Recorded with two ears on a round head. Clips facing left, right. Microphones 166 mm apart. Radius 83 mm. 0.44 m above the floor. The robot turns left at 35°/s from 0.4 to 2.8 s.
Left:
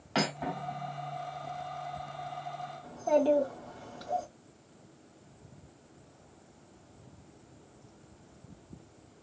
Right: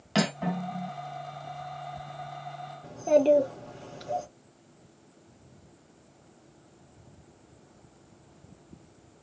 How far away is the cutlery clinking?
About 2 m.